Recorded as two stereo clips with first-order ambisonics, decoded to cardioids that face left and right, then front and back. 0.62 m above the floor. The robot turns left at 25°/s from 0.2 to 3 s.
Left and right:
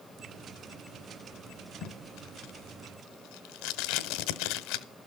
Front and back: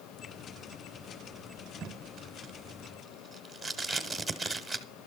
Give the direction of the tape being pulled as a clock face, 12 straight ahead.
8 o'clock.